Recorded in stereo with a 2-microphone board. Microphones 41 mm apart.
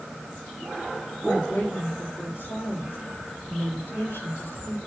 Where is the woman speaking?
80° left, 7 m.